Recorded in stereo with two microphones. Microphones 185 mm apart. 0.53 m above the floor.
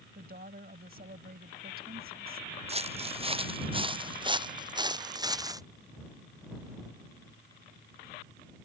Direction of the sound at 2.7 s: 35° right (ahead or behind).